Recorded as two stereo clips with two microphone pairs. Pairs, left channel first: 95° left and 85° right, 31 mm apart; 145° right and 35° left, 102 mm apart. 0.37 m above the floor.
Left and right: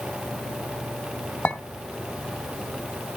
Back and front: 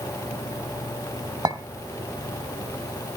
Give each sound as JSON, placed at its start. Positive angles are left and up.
{"t": 1.4, "sound": "a clink", "azimuth_deg": 80, "distance_m": 1.7}